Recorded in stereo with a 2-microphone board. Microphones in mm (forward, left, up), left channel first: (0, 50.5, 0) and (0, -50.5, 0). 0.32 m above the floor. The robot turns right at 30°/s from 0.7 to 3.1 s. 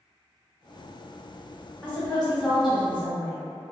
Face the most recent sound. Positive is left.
turn(degrees=-155)